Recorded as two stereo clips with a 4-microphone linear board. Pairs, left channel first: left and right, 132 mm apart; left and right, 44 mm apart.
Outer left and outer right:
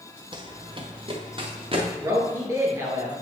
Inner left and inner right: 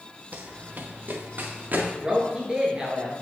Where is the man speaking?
25° right (ahead or behind), 1.9 m.